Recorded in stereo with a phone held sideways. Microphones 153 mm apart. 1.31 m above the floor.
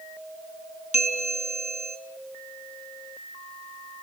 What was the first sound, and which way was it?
A bell, 55° left (ahead or behind).